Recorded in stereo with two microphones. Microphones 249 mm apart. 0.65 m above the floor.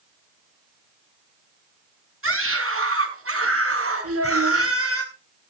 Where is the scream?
55° right (ahead or behind), 6 m; by 5.0 s 70° right (ahead or behind), 5 m.